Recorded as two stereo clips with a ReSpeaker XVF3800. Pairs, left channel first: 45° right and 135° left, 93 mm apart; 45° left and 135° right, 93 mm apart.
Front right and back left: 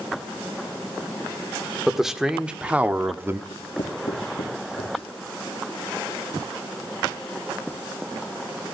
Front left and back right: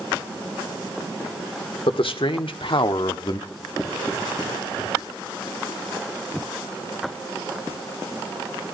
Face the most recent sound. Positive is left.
turn(degrees=-45)